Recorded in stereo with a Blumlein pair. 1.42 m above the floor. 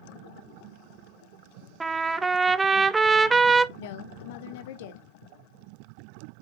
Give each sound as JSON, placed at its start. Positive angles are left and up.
{"t": 1.8, "sound": "a trumpet", "azimuth_deg": -10, "distance_m": 0.5}
{"t": 3.8, "sound": "a woman speaking", "azimuth_deg": 55, "distance_m": 1.2}